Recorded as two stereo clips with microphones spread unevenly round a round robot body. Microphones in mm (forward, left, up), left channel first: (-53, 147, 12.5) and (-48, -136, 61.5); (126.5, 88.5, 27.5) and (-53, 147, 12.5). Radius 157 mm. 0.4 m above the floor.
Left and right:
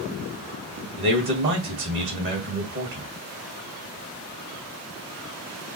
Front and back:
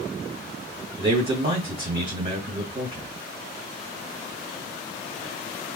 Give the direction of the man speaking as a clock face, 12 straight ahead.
4 o'clock.